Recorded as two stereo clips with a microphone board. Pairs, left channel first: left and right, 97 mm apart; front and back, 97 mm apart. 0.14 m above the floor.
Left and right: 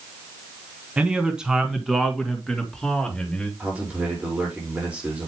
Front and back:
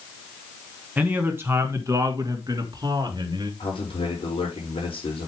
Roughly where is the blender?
No blender in this recording.